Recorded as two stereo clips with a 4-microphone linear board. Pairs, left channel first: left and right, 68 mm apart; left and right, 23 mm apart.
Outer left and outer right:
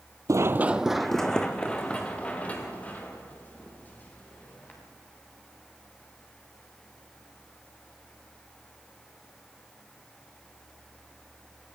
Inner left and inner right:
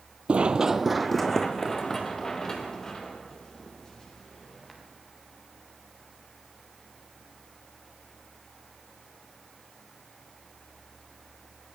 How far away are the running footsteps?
About 0.6 m.